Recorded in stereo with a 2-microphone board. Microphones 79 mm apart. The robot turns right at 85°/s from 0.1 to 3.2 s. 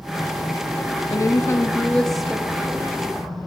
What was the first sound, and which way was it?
A woman speaking, 90° left.